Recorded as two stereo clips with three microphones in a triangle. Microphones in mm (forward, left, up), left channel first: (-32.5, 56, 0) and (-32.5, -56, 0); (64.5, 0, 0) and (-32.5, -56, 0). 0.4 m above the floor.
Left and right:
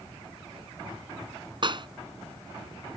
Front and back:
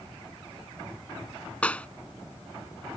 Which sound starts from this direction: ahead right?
A clap, at 1.6 s.